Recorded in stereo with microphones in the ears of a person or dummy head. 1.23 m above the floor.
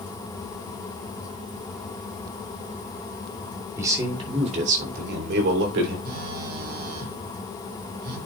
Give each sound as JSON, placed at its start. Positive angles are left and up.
{"t": 3.8, "sound": "a man speaking", "side_deg": -15, "distance_m": 2.5}
{"t": 6.0, "sound": "a phone buzzing", "side_deg": -55, "distance_m": 2.5}